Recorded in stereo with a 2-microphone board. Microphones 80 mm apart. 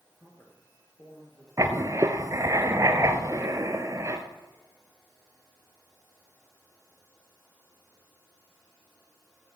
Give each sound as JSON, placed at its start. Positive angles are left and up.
{"t": 0.2, "sound": "a man speaking", "side_deg": 35, "distance_m": 4.0}
{"t": 1.6, "sound": "writing", "side_deg": -40, "distance_m": 1.4}